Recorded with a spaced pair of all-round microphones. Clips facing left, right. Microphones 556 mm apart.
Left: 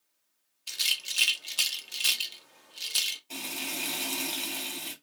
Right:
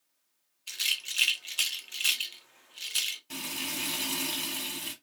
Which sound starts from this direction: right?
Frying, at 3.3 s.